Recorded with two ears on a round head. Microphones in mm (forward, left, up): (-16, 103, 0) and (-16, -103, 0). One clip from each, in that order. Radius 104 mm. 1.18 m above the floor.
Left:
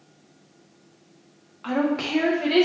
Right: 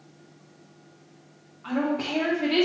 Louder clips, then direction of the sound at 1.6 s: Left 3 dB; 80° left.